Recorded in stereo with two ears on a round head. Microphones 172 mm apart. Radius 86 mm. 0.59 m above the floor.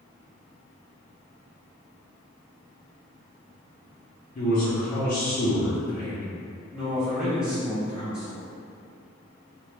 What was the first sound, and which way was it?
A man speaking, 45° left (ahead or behind).